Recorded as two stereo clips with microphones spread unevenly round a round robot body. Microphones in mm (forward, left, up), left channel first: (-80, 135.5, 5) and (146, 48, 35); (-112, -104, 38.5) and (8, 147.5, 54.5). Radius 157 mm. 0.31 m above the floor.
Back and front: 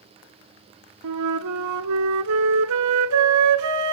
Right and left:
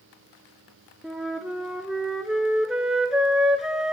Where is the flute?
25° right, 0.7 m.